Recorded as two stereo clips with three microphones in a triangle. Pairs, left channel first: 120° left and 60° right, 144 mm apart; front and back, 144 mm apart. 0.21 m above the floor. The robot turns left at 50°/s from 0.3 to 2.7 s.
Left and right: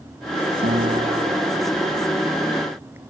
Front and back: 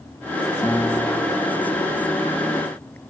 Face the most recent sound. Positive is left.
turn(degrees=180)